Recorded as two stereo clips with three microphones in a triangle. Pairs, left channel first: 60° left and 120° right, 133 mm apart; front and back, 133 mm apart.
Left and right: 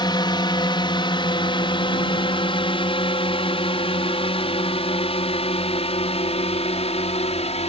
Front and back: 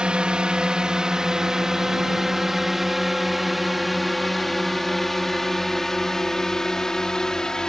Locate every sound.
0.0 s a drone: 100° left; by 7.7 s 85° left